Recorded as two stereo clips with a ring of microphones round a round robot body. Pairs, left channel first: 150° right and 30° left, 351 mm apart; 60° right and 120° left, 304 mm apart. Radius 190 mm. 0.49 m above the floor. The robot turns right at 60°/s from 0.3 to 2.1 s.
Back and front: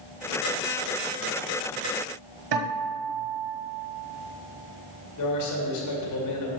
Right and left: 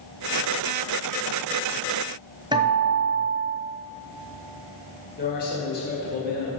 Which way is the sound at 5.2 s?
120° right.